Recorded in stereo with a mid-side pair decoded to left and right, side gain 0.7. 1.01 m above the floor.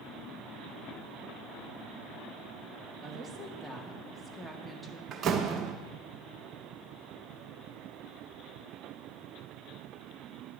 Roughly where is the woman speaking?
Ahead.